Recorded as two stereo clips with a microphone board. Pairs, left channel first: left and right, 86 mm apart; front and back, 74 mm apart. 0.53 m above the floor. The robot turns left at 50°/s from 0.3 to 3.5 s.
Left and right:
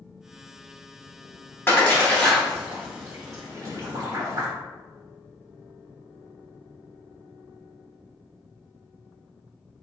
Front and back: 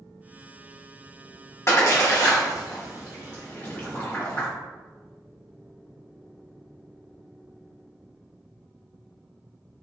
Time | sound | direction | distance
1.7 | a splash | 35° left | 1.2 m